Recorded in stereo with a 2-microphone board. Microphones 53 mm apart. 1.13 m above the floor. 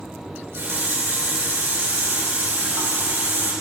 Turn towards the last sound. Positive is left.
turn(degrees=-50)  # may be behind; listen again after turning